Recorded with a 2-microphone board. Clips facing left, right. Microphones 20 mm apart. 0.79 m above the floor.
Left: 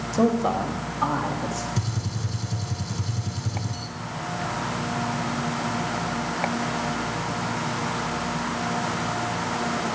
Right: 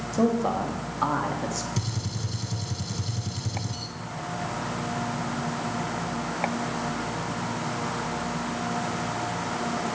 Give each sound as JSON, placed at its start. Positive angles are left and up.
{"t": 0.1, "sound": "a man speaking", "side_deg": 30, "distance_m": 1.5}
{"t": 1.8, "sound": "a gunshot", "side_deg": -25, "distance_m": 1.3}